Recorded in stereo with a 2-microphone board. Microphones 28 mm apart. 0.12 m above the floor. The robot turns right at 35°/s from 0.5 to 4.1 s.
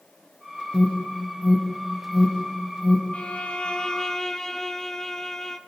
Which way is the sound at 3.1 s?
120° left.